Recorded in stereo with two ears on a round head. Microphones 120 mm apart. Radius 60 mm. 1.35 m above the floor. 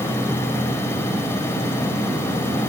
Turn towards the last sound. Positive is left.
No sound to turn to.